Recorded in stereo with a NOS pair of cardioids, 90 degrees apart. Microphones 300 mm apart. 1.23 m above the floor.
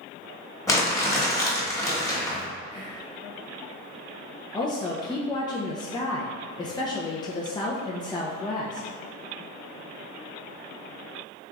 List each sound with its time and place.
0.7 s crumpling: 10° left, 1.3 m
2.7 s whispering: 25° left, 1.7 m
4.5 s a woman speaking: 15° left, 0.6 m